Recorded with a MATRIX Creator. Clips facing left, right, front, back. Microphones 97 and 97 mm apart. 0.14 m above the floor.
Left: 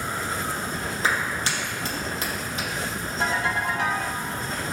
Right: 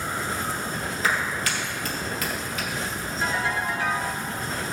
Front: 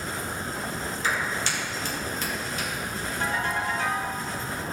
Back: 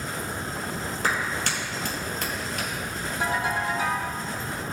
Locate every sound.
1.0 s a clap: 150° left, 3 m
3.2 s a ringtone: 100° left, 2.5 m